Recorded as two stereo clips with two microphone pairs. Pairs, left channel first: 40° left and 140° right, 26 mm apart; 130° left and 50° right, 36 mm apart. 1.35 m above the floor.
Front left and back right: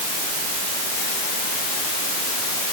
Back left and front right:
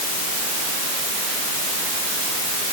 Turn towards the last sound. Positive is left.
No sound to turn to.